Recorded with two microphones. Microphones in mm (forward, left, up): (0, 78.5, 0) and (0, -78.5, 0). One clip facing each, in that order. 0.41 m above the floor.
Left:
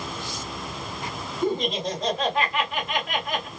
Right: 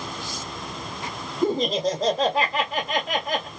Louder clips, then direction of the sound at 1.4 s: Right 3 dB; 40° right (ahead or behind).